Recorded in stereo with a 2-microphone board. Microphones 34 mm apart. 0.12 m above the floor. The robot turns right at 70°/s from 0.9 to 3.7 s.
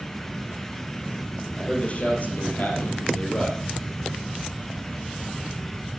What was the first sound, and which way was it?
A man speaking, 25° left.